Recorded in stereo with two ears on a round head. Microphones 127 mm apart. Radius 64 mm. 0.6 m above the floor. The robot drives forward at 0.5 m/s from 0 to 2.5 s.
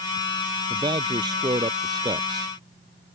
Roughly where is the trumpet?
No trumpet in this recording.